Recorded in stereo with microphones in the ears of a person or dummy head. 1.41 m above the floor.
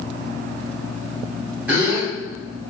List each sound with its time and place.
1.7 s a gasp: 10° right (ahead or behind), 1.3 m